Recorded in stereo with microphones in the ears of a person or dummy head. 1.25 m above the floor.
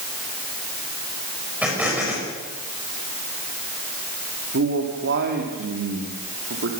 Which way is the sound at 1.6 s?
5° right (ahead or behind).